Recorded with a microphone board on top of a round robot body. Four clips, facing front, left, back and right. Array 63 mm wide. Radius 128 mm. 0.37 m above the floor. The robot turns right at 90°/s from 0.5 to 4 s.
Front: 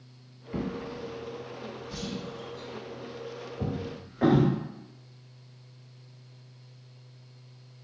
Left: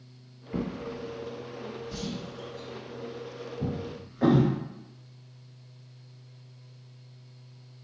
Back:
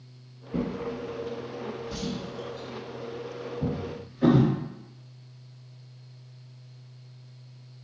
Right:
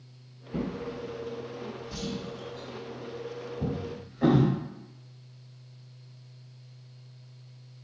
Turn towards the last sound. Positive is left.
turn(degrees=20)